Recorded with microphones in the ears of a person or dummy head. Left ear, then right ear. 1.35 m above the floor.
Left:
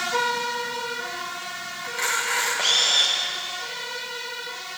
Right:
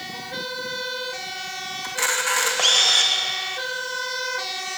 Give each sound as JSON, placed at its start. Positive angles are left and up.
{"t": 1.8, "sound": "a camera shutter", "side_deg": -35, "distance_m": 2.5}